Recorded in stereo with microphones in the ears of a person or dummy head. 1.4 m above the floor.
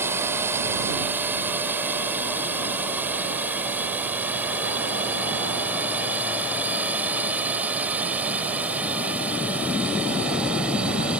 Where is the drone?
10° right (ahead or behind); by 11.2 s 5° right (ahead or behind).